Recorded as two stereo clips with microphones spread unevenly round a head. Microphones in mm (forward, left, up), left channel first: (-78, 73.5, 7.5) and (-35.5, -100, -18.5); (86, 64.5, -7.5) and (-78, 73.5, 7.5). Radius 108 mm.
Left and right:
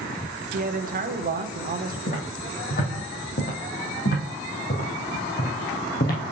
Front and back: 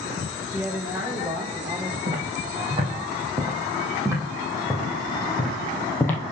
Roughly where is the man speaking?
Right.